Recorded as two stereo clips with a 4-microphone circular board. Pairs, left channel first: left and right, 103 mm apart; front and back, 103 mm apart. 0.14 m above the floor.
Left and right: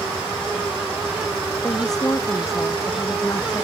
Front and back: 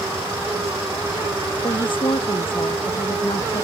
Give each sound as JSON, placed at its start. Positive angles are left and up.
{"t": 1.6, "sound": "a woman speaking", "azimuth_deg": 40}